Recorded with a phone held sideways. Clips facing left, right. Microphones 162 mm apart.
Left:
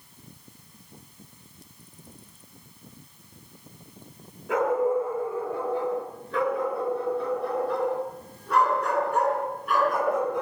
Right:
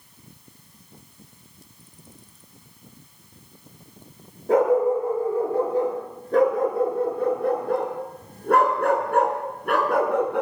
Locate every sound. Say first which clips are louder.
4.5 s a dog barking: right 5 dB; 35° right (ahead or behind), 6.5 m; by 10.4 s 70° right (ahead or behind), 4 m